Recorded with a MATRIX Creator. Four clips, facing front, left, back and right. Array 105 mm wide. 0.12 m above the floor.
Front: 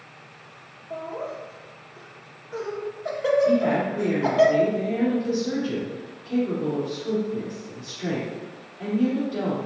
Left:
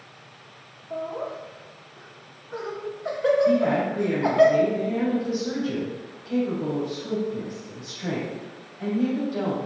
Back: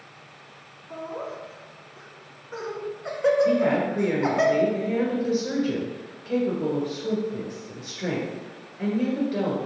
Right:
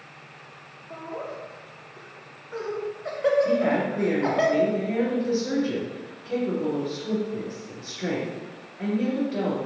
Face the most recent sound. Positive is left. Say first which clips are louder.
# left 2 dB, even
turn(degrees=-145)